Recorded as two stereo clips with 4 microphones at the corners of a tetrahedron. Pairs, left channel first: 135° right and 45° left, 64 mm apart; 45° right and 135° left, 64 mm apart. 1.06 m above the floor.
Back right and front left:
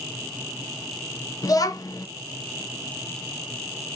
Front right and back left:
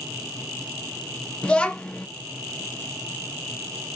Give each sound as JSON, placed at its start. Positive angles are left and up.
{"t": 1.4, "sound": "a child speaking", "azimuth_deg": -120, "distance_m": 0.6}